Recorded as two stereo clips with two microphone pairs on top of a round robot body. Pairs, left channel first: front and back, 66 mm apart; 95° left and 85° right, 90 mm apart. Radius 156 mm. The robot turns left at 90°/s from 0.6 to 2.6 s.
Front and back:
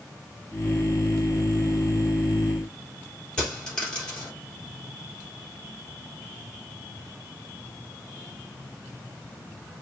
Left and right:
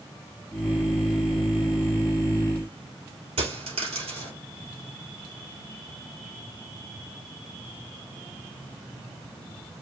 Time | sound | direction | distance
3.4 | a dropped coin | 75° right | 3 m